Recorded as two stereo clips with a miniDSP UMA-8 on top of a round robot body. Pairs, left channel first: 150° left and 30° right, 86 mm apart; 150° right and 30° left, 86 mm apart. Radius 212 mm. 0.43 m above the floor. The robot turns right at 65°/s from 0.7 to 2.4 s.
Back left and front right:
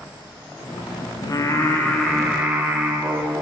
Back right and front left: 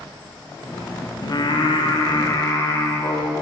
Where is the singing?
Straight behind, 0.9 m; by 3.4 s 100° right, 0.9 m.